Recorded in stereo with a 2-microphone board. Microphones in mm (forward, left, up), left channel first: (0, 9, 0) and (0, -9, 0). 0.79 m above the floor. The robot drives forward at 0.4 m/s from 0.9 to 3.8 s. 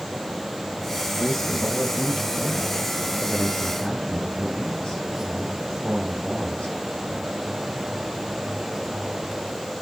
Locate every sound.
1.2 s a man speaking: 85° left, 5 m; by 6.7 s 75° left (ahead or behind), 5.5 m